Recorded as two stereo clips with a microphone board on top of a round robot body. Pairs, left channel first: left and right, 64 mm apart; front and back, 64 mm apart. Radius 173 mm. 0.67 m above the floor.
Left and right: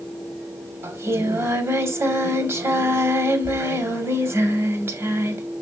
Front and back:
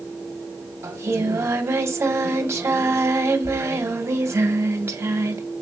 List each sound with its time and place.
0.8 s singing: 130° right, 1.9 m